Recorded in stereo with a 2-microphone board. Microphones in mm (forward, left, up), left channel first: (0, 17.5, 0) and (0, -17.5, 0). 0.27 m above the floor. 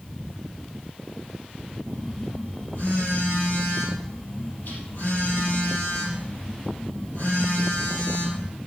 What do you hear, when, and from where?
1.9 s a phone buzzing: 50° left (ahead or behind), 4.5 m